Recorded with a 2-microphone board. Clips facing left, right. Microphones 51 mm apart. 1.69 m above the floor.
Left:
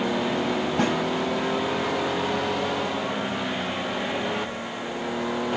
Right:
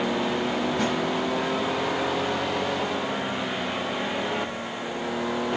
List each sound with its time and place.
0.8 s a snare drum: 60° left (ahead or behind), 7 m